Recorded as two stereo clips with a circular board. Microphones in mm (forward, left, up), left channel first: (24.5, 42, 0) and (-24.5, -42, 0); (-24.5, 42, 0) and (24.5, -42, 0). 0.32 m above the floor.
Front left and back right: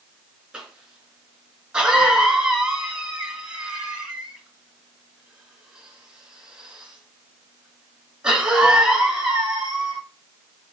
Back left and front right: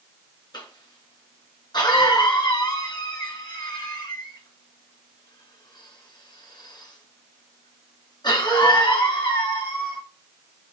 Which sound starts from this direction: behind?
A cough, at 0.5 s.